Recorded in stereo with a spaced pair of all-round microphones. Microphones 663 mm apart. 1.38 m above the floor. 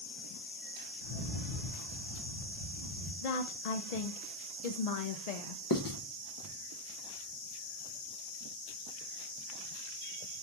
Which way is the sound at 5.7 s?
35° left (ahead or behind).